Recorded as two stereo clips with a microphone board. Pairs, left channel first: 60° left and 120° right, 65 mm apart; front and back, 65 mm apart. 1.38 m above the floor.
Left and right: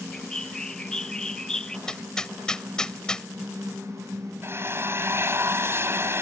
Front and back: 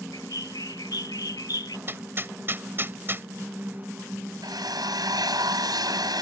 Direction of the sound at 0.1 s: 20° right.